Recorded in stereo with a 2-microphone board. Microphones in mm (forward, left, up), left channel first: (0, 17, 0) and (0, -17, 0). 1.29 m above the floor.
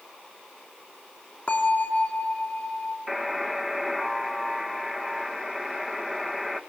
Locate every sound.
1.5 s a bell: 40° left (ahead or behind), 2.5 m
3.1 s a buzzer: 10° right (ahead or behind), 1.8 m